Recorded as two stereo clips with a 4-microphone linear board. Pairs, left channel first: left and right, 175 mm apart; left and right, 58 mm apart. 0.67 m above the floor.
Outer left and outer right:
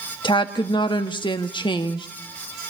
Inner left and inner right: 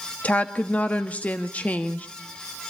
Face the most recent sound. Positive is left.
turn(degrees=25)  # may be behind; listen again after turning